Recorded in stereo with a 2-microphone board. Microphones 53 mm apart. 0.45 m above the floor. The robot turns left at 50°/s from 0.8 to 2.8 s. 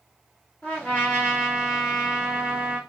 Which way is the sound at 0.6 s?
35° left.